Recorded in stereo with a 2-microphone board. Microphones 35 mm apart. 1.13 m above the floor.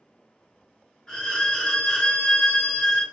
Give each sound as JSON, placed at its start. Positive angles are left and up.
{"t": 1.1, "sound": "a violin", "side_deg": 15, "distance_m": 0.9}